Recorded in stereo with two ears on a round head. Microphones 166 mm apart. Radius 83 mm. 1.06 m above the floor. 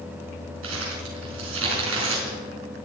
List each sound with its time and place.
0.6 s crumpling: 85° right, 5 m